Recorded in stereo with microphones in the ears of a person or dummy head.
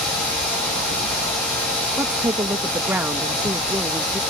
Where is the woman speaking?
10° right (ahead or behind).